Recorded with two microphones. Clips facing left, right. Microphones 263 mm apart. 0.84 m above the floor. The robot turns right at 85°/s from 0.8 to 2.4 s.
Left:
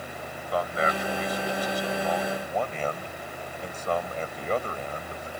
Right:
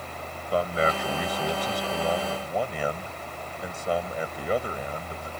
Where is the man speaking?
145° right; by 5.3 s 10° right.